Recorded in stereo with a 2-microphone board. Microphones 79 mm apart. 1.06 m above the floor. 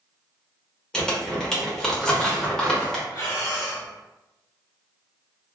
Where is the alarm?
No alarm in this recording.